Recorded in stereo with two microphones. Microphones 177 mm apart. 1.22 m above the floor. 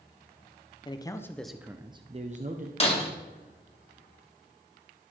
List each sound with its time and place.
0.8 s a man speaking: 25° left (ahead or behind), 0.6 m; by 2.7 s 50° right (ahead or behind), 0.7 m
2.8 s breaking glass: 35° left (ahead or behind), 1.3 m